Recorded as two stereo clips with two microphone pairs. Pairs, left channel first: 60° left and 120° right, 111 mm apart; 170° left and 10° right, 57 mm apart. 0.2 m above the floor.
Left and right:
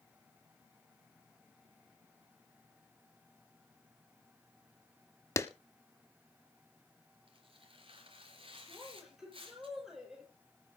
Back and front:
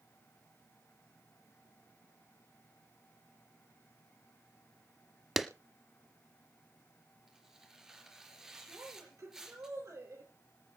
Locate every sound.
5.4 s a clap: 70° left, 0.9 m
7.3 s tearing paper: 90° right, 4 m
8.7 s a woman speaking: 35° right, 6 m